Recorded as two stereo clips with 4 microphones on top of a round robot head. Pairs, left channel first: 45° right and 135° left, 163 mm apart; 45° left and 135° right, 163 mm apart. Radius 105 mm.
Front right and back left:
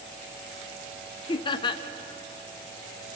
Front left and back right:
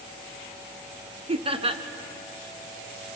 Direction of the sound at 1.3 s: 95° right.